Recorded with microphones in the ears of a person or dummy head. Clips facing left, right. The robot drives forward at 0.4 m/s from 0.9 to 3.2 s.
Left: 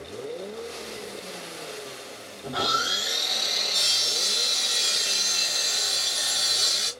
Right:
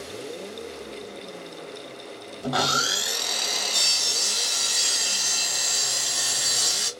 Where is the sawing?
90° right, 0.6 m; by 6.9 s 65° right (ahead or behind), 0.7 m.